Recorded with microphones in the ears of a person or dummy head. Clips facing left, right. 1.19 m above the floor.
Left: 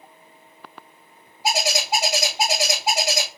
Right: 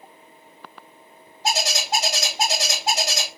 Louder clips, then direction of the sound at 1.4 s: Left 2 dB; 10° left (ahead or behind).